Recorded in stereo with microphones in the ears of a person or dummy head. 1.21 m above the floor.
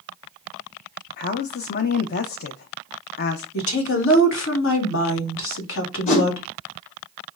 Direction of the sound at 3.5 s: 80° left.